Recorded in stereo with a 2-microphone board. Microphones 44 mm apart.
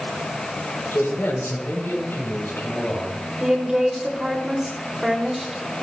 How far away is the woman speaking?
About 3.5 m.